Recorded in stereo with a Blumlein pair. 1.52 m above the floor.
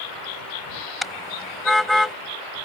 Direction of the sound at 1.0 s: 5° left.